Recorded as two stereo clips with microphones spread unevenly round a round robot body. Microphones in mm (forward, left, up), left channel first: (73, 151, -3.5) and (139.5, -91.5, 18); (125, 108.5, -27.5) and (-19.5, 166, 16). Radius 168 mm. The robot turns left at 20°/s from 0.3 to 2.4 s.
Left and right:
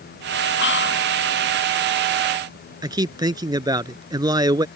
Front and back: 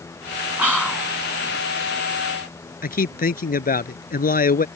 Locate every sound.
0.6 s whispering: 75° left; by 1.1 s 65° left
2.8 s a man speaking: straight ahead